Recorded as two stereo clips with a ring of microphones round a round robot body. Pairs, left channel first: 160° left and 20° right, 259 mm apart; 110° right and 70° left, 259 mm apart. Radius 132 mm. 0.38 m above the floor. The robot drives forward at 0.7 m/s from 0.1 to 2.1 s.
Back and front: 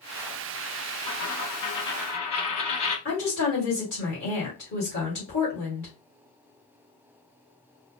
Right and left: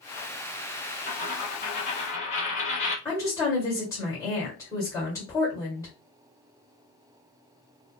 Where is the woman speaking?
170° left, 1.7 m.